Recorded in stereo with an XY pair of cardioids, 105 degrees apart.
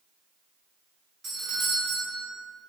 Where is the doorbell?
40° right, 1.3 m.